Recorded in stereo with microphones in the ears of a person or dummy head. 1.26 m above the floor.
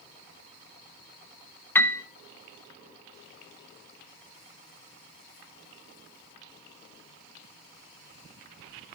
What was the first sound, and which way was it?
A piano, 10° left (ahead or behind).